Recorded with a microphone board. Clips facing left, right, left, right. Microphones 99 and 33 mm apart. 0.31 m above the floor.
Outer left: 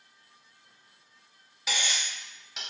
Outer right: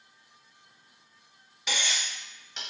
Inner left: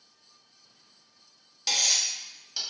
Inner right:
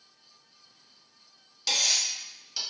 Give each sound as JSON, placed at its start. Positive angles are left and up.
{"t": 1.7, "sound": "cutlery clinking", "side_deg": 5, "distance_m": 0.9}